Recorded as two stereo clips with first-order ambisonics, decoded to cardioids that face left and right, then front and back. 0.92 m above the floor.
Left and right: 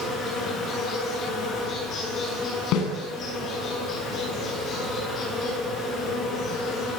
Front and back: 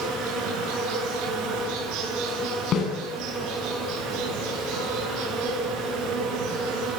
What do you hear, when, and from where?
0.0 s an insect: 150° left, 9.5 m
2.7 s a snare drum: 55° left, 9 m